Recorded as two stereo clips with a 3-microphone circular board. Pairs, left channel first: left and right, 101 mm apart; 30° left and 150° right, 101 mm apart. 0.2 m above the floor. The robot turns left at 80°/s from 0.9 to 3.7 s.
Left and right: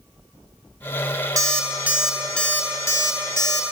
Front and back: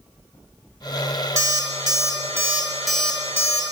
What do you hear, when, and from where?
1.4 s an alarm clock: 120° right, 0.6 m; by 3.7 s 55° left, 0.6 m